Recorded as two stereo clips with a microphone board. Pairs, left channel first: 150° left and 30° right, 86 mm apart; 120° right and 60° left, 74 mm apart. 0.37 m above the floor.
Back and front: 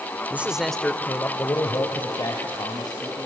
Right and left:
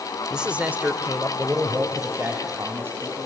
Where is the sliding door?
I don't hear a sliding door.